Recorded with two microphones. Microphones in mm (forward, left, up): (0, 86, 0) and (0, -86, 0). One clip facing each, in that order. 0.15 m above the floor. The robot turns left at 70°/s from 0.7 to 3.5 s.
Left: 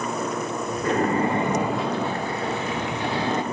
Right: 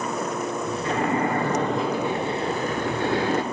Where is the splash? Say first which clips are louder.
Left 3 dB; 65° left, 2.5 m; by 3.4 s 115° right, 2.5 m.